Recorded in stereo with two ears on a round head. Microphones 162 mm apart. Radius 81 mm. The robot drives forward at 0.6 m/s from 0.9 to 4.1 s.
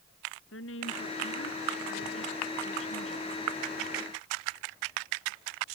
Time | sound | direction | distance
0.5 | a woman speaking | 75° left (ahead or behind) | ?